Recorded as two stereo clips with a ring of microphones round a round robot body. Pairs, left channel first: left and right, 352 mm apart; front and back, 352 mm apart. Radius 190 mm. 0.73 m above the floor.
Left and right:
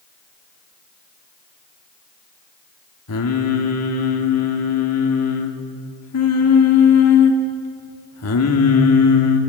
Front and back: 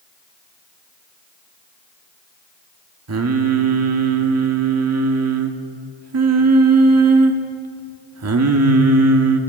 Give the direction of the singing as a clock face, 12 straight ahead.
7 o'clock.